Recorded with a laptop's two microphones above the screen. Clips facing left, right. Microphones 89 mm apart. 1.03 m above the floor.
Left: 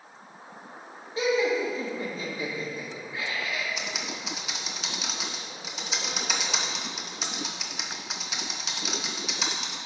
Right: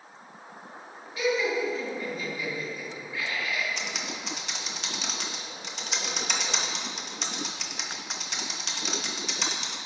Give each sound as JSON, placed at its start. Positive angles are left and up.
{"t": 1.2, "sound": "laughter", "side_deg": 30, "distance_m": 1.9}
{"t": 3.8, "sound": "typing on a keyboard", "side_deg": 5, "distance_m": 0.8}